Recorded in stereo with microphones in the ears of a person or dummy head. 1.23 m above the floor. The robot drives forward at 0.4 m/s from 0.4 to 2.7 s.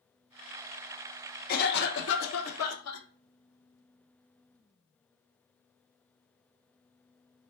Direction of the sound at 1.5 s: 50° left (ahead or behind).